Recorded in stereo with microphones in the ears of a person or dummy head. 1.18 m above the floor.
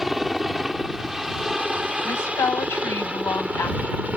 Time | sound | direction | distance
0.0 | a helicopter | centre (ahead or behind) | ?
2.0 | a woman speaking | 15° left (ahead or behind) | ?